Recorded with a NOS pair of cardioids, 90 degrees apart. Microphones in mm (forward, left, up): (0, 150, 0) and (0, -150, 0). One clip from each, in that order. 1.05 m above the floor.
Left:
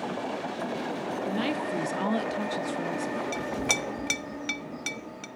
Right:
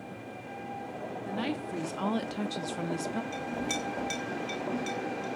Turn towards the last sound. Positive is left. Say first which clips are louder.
# left 5 dB
turn(degrees=60)